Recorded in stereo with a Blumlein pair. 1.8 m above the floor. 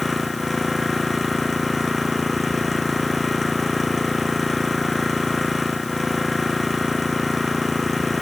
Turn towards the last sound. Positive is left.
turn(degrees=10)